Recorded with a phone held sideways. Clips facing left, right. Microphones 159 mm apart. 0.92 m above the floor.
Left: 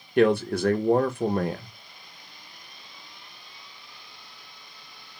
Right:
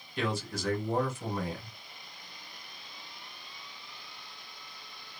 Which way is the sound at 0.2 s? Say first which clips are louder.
Left 13 dB; 65° left (ahead or behind).